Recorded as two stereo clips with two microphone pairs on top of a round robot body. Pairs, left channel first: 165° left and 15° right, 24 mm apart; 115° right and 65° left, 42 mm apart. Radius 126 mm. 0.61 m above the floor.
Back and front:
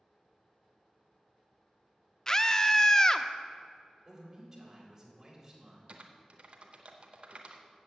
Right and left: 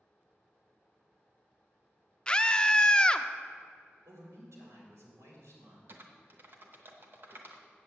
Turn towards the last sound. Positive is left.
turn(degrees=25)